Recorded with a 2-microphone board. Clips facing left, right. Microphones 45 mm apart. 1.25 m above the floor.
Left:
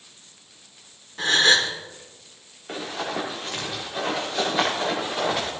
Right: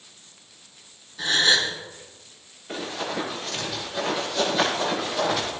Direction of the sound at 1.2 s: 55° left (ahead or behind).